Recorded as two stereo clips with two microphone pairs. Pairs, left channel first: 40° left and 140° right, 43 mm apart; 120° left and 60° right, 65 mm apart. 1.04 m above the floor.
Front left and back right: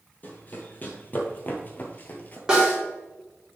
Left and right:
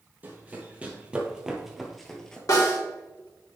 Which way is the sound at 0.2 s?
Straight ahead.